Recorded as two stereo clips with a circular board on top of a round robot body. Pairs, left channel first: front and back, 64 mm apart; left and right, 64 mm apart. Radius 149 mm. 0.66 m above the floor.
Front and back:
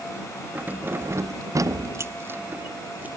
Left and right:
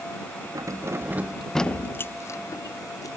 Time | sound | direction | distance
0.6 | keys jangling | 115° right | ?